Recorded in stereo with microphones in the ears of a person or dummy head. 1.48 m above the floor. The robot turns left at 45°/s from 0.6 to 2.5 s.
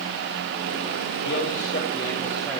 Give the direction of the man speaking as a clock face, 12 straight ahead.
10 o'clock.